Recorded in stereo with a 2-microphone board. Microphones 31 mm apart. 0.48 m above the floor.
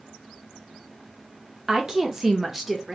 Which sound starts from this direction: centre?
A woman speaking, at 1.7 s.